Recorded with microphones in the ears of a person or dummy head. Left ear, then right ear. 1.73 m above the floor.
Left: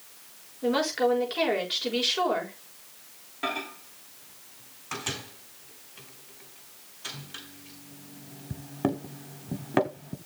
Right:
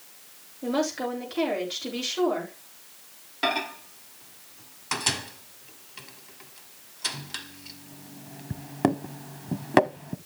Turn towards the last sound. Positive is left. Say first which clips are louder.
# right 5 dB
turn(degrees=-25)  # may be behind; listen again after turning